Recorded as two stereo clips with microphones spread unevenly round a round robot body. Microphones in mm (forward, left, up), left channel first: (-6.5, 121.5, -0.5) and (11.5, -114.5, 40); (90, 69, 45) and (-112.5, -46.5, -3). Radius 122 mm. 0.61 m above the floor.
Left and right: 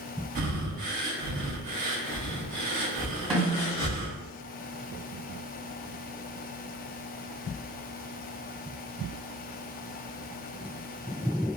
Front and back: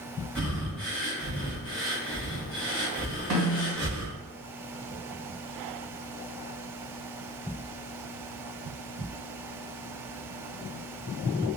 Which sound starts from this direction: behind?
A snare drum, at 3.3 s.